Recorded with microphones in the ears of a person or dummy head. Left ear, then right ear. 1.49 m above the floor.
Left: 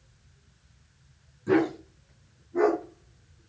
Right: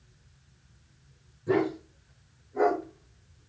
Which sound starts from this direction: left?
A dog barking, at 1.5 s.